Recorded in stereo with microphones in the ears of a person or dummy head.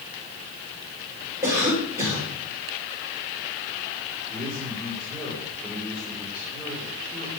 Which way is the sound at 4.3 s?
5° right (ahead or behind).